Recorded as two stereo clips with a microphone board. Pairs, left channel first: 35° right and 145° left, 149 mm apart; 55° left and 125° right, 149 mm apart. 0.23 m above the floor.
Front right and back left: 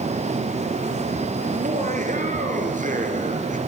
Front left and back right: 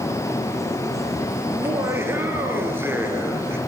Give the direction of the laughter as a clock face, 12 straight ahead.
7 o'clock.